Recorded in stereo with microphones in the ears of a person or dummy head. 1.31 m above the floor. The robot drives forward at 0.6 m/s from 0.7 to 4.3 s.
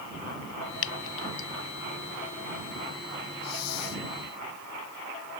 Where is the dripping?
70° left (ahead or behind); by 1.5 s 75° left (ahead or behind).